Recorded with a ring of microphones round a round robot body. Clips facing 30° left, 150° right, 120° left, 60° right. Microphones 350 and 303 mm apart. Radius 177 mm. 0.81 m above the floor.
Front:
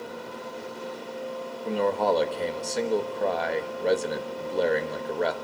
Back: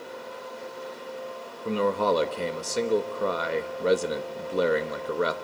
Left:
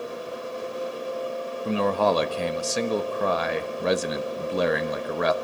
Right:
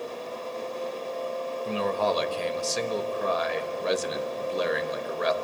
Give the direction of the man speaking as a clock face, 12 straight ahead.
8 o'clock.